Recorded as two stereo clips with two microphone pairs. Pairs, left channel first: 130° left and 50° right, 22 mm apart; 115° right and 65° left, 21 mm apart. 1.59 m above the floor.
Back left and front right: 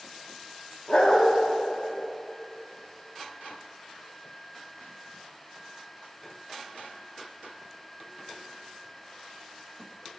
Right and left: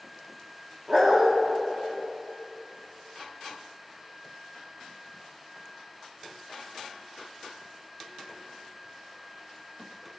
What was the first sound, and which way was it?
A dog barking, 120° left.